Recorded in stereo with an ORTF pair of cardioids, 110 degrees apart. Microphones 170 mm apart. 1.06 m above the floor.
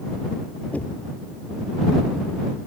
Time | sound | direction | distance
0.7 | knocking | 10° left | ?